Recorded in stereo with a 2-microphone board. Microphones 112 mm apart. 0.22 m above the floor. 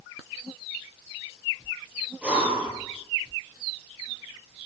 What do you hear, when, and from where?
2.2 s breathing: 10° right (ahead or behind), 6 m